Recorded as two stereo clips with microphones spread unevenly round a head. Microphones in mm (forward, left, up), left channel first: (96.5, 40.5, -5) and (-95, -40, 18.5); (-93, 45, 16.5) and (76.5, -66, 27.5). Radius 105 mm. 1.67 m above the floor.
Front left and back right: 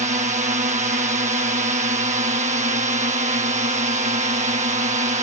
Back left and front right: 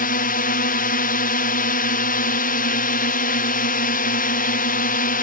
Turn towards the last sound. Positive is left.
turn(degrees=155)